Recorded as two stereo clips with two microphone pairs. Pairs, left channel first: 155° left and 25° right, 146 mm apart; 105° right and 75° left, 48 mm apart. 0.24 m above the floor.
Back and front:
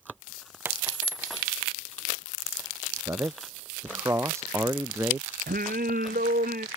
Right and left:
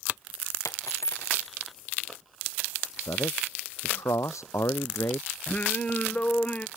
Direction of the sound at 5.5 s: 40° right.